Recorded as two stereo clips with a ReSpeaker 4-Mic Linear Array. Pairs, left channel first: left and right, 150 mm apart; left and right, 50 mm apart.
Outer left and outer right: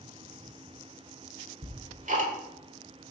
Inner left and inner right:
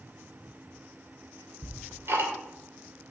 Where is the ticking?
60° right (ahead or behind), 2.5 m.